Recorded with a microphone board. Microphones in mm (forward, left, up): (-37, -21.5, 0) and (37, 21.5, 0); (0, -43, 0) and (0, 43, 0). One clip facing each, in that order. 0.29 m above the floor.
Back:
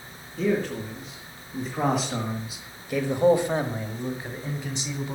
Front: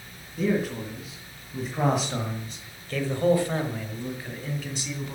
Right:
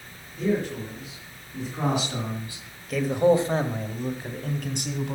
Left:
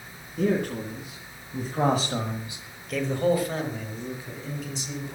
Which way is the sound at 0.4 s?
110° left.